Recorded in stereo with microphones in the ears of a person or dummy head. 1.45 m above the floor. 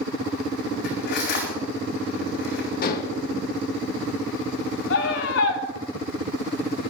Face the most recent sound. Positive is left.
turn(degrees=75)  # may be behind; listen again after turning